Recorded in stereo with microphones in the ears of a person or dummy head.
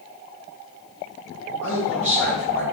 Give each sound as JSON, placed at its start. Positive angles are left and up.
{"t": 1.6, "sound": "a man speaking", "side_deg": 5, "distance_m": 1.4}